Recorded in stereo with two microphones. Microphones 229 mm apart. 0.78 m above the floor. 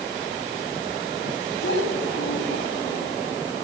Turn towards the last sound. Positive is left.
turn(degrees=60)  # may be behind; listen again after turning